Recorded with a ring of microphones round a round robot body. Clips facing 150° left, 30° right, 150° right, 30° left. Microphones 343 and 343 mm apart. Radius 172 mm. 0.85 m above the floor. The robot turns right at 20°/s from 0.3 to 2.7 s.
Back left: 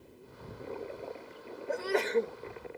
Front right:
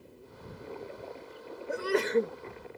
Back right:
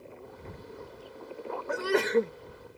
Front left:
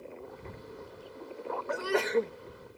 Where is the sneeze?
100° right; by 2.3 s 90° right.